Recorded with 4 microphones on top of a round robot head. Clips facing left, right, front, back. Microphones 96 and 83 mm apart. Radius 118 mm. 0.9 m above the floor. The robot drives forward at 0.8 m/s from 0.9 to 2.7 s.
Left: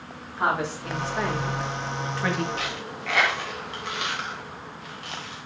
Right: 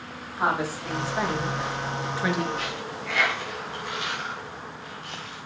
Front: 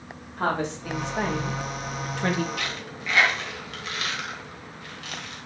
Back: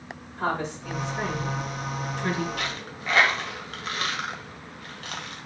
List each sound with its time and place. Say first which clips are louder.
0.4 s a woman speaking: even, front 2 dB; 5° right, 3 m; by 2.5 s 15° right, 1.6 m
2.6 s a dropped coin: even, even; 130° left, 1.2 m; by 5.5 s 135° left, 1.2 m